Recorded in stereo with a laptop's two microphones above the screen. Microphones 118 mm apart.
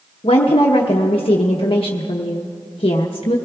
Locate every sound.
0.2 s a woman speaking: 50° left (ahead or behind), 0.8 m